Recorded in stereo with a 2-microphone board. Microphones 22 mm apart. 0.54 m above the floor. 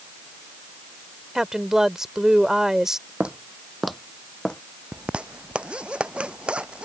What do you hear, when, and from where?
1.4 s a woman speaking: 25° right (ahead or behind)
3.2 s footsteps: 60° right (ahead or behind); by 4.6 s 35° left (ahead or behind)
4.9 s a zipper: 60° right (ahead or behind)